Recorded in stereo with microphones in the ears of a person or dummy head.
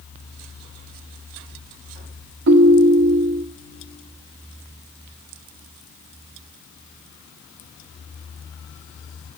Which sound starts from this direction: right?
A ringtone, at 2.5 s.